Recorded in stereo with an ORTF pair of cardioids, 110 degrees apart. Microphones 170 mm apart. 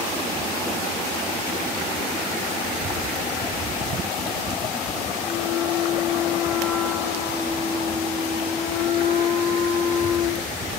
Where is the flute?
55° left, 2.5 m.